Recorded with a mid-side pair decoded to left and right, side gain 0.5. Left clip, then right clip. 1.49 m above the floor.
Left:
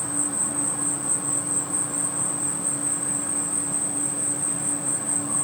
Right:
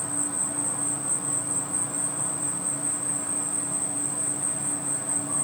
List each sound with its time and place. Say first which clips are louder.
0.0 s an insect: left 2 dB; 25° left, 0.9 m